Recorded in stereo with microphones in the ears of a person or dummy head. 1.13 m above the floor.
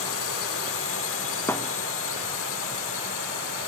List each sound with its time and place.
0.0 s a drone: 70° left (ahead or behind)
1.5 s a thud: 20° left (ahead or behind)